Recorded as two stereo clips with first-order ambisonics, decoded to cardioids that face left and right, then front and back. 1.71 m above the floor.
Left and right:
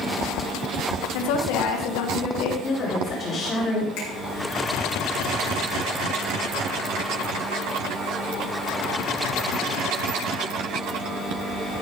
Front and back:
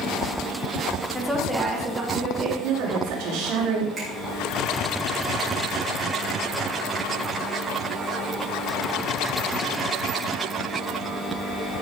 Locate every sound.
1.1 s a woman speaking: 85° left, 2 m; by 2.5 s 115° left, 2.5 m
2.6 s a woman speaking: 155° left, 4 m
4.0 s a finger snap: 110° left, 5 m